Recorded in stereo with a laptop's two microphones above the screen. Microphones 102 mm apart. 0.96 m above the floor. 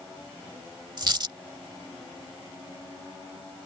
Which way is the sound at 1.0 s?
50° right (ahead or behind).